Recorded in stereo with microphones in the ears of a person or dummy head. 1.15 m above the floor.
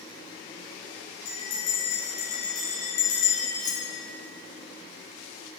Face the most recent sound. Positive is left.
turn(degrees=70)  # may be behind; listen again after turning